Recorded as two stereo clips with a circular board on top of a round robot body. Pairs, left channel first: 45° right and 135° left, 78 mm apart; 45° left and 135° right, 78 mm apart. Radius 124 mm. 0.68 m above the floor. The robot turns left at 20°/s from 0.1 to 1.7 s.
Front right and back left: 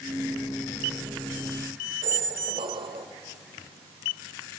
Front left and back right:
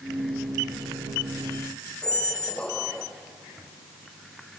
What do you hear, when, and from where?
2.0 s a squeak: 125° left, 1.0 m